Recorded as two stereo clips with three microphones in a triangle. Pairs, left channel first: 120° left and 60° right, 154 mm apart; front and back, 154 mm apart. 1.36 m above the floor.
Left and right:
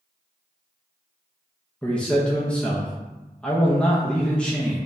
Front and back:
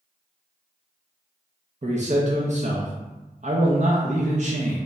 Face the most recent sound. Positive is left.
turn(degrees=-160)